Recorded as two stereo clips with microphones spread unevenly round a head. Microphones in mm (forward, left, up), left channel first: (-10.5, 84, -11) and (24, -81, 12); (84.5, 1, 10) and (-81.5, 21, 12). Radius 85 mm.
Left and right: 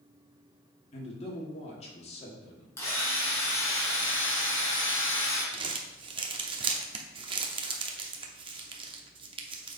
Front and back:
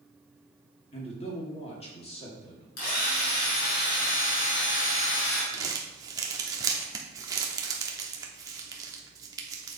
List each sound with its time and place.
0.9 s a man speaking: 50° left, 2 m
2.8 s a drill: 25° left, 3 m
5.5 s crumpling: 120° right, 0.8 m